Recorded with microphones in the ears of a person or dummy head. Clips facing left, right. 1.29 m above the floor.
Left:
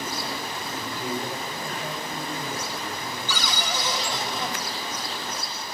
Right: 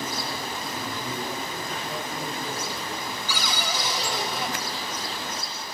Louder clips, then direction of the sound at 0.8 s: Left 4 dB; 10° left (ahead or behind).